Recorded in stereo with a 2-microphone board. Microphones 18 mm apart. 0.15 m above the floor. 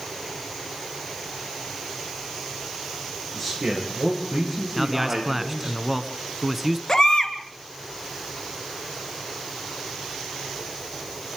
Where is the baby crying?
35° left (ahead or behind), 1.7 m.